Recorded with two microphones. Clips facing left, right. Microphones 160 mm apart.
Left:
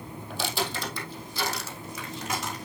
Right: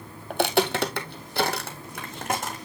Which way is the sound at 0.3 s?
60° right (ahead or behind).